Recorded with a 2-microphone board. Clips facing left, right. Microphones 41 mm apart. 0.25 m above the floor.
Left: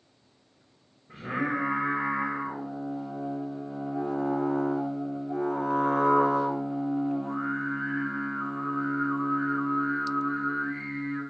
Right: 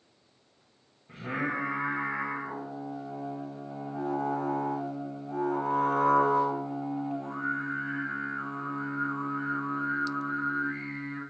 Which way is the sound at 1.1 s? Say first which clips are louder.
Left 2 dB; 80° right.